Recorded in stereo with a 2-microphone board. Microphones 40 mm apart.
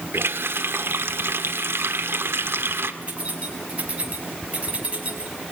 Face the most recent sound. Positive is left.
turn(degrees=-30)  # may be behind; listen again after turning